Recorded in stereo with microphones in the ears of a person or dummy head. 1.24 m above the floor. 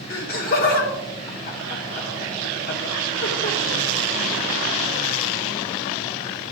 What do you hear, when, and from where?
0.1 s laughter: 40° left (ahead or behind), 0.8 m